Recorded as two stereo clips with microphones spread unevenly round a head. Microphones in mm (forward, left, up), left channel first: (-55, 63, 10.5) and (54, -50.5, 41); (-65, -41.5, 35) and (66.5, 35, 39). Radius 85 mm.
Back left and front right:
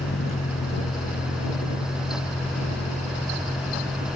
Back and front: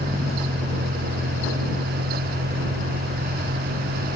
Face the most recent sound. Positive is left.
turn(degrees=50)